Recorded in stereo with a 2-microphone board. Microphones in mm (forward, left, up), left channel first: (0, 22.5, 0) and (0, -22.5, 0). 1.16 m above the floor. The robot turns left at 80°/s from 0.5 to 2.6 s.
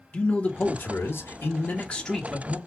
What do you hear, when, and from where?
0.1 s a man speaking: 140° left, 1.1 m; by 2.6 s 25° right, 1.1 m